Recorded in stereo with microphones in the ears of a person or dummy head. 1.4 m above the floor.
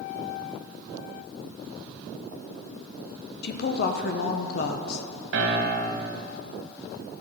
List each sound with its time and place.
3.4 s a woman speaking: 60° left (ahead or behind), 0.8 m
5.3 s a piano: 65° right (ahead or behind), 0.9 m